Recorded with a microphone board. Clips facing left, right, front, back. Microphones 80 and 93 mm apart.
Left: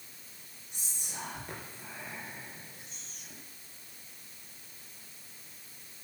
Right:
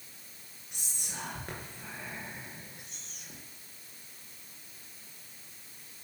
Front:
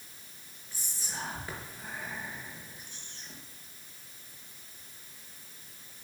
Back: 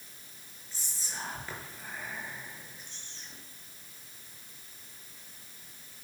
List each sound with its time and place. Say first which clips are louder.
0.7 s whispering: right 1 dB, front 1 dB; 75° right, 3.5 m